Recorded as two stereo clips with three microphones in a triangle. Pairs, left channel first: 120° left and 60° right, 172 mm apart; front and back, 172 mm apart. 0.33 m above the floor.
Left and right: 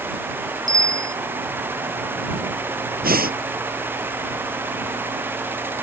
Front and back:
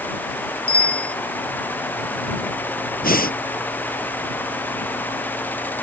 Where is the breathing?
30° right.